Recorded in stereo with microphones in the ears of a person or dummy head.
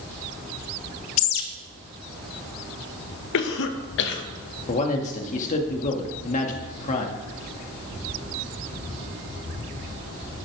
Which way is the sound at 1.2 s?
75° left (ahead or behind).